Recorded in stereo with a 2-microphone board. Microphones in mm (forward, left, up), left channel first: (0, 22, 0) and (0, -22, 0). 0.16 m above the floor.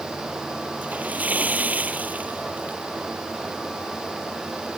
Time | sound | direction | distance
0.8 | a splash | 35° right (ahead or behind) | ?